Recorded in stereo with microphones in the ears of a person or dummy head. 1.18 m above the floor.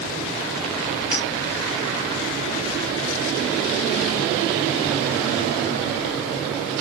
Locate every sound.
1.1 s a clink: 5° left (ahead or behind), 2.5 m